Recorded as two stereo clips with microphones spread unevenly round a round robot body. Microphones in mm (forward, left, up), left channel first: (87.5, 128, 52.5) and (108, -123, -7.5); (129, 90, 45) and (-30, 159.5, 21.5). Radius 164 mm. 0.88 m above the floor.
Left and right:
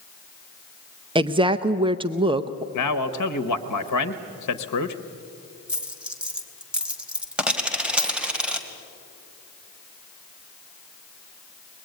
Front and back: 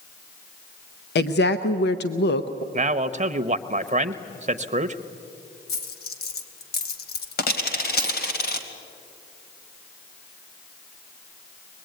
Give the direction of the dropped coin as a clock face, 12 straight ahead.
12 o'clock.